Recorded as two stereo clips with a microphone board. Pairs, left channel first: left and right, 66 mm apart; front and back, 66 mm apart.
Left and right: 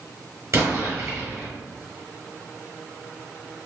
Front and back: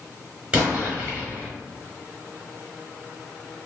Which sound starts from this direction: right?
An explosion, at 0.5 s.